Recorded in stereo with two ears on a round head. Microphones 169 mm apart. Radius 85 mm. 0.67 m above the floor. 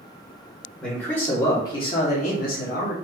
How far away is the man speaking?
About 1.3 m.